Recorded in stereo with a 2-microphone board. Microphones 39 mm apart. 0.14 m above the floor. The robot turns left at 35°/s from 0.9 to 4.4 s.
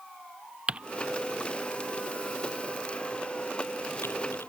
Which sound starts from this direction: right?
Typing on a keyboard, at 0.7 s.